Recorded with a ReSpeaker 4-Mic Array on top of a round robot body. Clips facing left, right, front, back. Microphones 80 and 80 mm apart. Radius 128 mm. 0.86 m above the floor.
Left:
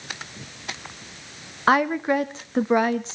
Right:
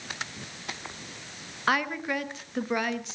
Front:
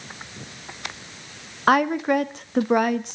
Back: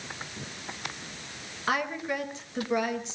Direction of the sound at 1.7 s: 35° left.